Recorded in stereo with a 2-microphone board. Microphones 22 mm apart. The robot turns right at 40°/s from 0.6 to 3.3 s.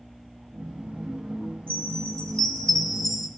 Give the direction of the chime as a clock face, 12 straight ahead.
8 o'clock.